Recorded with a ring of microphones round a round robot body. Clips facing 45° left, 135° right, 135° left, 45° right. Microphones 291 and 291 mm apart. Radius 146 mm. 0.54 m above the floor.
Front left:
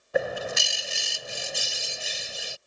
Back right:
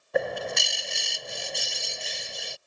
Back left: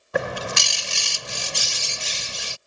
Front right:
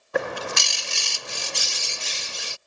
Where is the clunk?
I don't hear a clunk.